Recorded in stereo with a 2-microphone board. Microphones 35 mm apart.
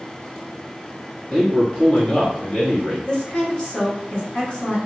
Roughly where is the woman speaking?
Left.